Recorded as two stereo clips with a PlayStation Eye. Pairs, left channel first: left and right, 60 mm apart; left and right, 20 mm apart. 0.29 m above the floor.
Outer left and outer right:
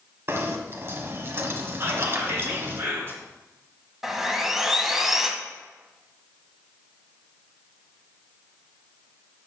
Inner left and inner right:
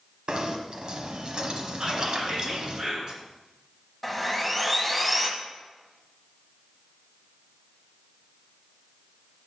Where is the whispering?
40° right (ahead or behind), 4 m.